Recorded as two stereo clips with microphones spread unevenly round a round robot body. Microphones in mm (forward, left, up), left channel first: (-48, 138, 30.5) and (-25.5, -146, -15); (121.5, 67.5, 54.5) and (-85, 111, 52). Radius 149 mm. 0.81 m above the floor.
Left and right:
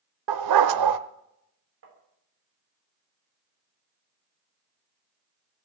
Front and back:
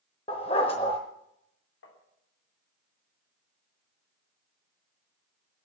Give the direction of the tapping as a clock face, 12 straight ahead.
1 o'clock.